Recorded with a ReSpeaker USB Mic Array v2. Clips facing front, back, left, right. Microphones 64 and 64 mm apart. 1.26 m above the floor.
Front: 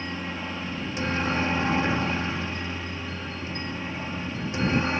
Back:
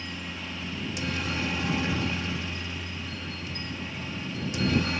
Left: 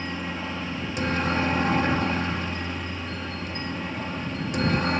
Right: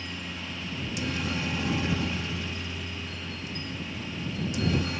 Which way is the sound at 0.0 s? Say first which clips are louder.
Front 5 dB, left 7 dB; 50° left.